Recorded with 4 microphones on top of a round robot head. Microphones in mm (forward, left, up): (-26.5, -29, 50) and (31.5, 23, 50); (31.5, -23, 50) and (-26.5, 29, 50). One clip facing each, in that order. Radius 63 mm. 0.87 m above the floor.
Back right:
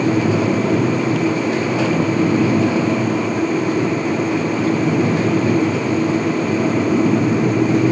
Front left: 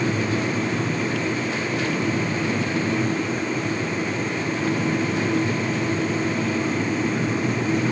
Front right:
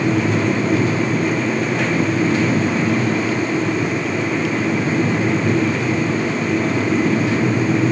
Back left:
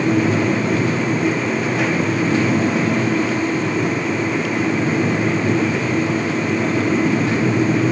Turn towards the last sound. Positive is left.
No sound to turn to.